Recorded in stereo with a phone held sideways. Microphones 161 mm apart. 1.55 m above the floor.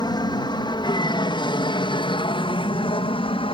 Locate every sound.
0.0 s an aircraft: 30° left (ahead or behind); by 3.5 s 35° left (ahead or behind)